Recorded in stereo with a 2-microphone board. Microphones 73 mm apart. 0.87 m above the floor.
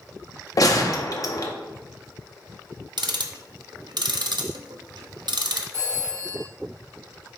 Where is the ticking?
75° right (ahead or behind), 0.5 m.